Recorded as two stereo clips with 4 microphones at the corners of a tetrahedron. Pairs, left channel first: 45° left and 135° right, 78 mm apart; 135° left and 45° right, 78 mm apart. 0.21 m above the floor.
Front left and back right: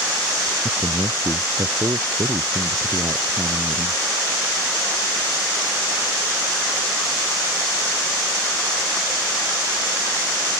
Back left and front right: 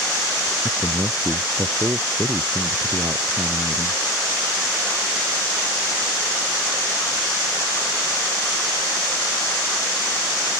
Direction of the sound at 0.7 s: 100° right.